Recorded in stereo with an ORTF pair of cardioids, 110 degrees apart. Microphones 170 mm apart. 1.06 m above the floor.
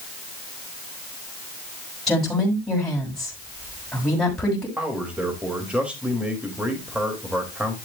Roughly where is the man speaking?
Ahead.